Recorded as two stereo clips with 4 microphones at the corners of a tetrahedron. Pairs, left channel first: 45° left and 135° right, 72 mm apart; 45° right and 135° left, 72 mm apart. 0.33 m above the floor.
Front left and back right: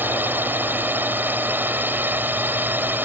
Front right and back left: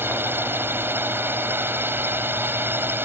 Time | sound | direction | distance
0.0 | a drone | 175° left | ?